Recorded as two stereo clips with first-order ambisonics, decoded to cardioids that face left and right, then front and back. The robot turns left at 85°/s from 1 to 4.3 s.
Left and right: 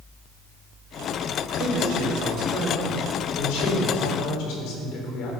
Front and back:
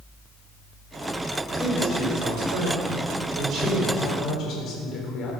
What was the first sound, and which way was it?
A man speaking, 70° right.